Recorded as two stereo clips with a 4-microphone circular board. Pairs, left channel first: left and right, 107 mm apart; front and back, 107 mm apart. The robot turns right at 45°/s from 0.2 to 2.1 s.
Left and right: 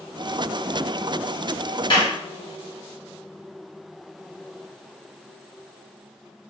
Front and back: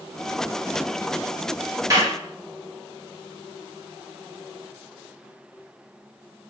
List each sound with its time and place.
1.9 s a clap: 125° left, 1.0 m; by 2.1 s 135° left, 1.0 m